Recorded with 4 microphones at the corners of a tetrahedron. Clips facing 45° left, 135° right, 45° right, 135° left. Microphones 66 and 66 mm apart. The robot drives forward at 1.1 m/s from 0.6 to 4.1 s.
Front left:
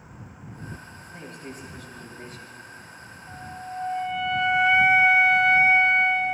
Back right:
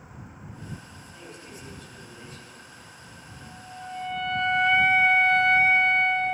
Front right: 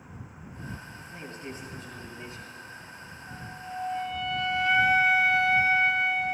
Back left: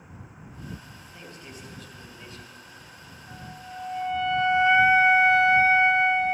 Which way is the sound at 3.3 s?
10° left.